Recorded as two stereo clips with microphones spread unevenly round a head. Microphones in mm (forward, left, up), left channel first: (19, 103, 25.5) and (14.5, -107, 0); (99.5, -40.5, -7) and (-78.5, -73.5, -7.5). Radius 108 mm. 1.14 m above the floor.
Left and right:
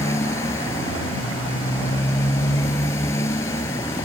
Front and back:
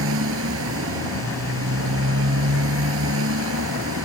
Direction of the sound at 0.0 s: 165° left.